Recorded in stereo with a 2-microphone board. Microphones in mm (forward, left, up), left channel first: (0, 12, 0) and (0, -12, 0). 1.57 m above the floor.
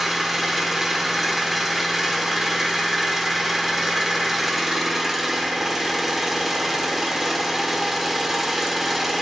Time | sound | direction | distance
0.0 | an engine running | 10° right (ahead or behind) | 0.9 m